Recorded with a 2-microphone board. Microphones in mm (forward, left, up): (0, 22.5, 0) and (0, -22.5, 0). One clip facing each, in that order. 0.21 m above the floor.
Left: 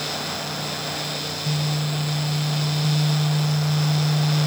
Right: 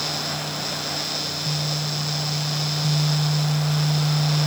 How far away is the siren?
I don't hear a siren.